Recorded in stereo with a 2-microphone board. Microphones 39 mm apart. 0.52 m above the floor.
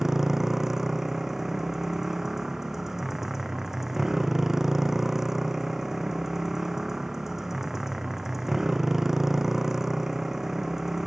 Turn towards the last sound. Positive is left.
turn(degrees=-10)  # may be behind; listen again after turning